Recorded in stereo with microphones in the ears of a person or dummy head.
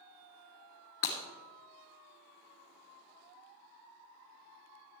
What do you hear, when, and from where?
1.0 s breaking glass: 50° left (ahead or behind), 1.9 m